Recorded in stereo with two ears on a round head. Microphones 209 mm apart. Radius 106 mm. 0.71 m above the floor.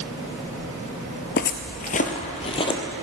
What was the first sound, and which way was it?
Footsteps, 45° left (ahead or behind).